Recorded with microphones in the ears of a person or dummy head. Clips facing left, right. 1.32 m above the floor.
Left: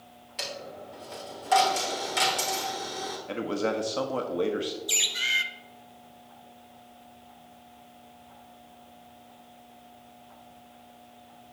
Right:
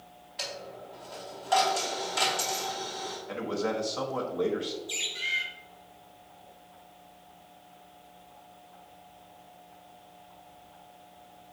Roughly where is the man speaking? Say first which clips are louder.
Left 2 dB; left.